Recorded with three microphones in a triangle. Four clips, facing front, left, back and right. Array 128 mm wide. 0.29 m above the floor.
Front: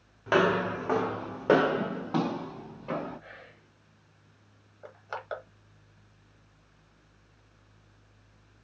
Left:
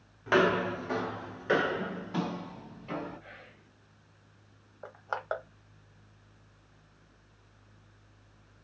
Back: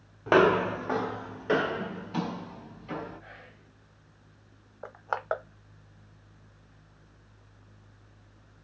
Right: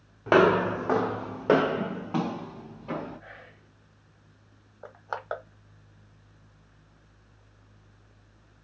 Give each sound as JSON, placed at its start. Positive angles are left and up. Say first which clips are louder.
{"t": 0.3, "sound": "footsteps", "louder": "right 6 dB, back 3 dB", "azimuth_deg": -125, "distance_m": 0.7}
{"t": 3.2, "sound": "whispering", "louder": "right 3 dB, even", "azimuth_deg": -100, "distance_m": 1.0}
{"t": 4.8, "sound": "crushing", "louder": "even, back 7 dB", "azimuth_deg": -175, "distance_m": 0.8}